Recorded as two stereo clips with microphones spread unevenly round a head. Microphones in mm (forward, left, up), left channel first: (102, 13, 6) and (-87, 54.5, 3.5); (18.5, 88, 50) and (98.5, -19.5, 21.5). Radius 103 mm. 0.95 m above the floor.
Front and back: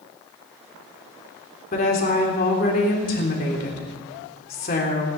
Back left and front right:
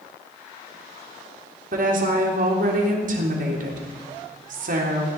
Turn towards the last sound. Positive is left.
turn(degrees=-65)